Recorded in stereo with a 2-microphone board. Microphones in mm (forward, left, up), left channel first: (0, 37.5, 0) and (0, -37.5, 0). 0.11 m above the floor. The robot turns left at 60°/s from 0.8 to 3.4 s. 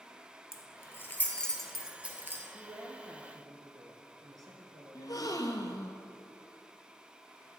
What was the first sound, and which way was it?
Keys jangling, 40° left (ahead or behind).